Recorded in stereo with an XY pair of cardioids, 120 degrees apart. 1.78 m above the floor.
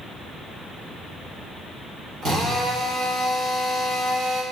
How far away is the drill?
About 3.5 m.